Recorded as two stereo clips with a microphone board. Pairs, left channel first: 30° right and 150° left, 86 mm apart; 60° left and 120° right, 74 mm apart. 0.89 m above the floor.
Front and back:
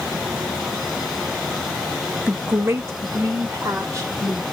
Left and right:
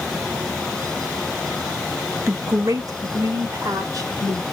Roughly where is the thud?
No thud in this recording.